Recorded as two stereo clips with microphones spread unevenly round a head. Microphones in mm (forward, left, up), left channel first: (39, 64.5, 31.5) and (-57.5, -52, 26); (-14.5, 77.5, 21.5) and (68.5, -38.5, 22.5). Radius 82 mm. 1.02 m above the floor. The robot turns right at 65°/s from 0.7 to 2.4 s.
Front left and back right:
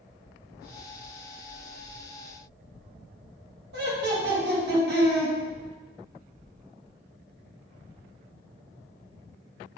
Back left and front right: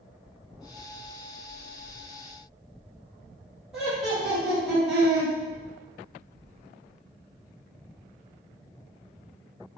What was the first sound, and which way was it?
Laughter, 140° right.